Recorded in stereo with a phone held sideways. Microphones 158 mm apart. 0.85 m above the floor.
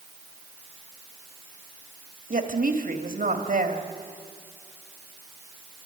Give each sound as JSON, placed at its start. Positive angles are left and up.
{"t": 2.3, "sound": "a woman speaking", "side_deg": -60, "distance_m": 1.9}